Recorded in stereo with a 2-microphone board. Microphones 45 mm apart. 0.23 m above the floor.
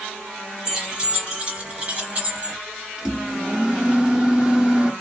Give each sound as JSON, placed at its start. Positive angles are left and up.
{"t": 0.7, "sound": "keys jangling", "side_deg": -15, "distance_m": 1.9}
{"t": 3.0, "sound": "a microwave", "side_deg": -15, "distance_m": 0.8}